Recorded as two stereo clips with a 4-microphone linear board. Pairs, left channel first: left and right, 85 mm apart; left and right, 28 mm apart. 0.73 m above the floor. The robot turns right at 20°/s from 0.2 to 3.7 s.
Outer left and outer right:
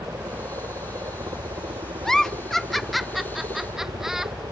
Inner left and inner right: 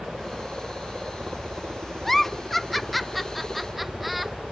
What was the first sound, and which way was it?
A helicopter, 140° right.